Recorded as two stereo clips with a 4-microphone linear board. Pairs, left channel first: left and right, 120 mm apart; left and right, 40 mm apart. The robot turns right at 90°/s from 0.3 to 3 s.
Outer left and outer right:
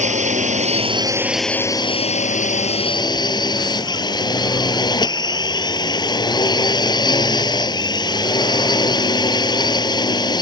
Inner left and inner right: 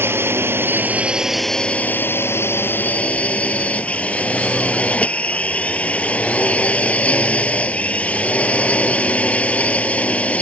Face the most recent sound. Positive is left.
turn(degrees=145)